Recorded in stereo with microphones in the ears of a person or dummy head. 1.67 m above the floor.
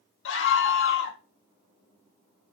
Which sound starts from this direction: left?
A scream, at 0.2 s.